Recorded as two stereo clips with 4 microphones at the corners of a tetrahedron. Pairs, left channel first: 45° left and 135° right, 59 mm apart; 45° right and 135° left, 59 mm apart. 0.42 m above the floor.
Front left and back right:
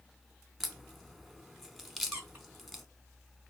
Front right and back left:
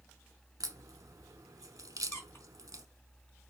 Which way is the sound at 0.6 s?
135° left.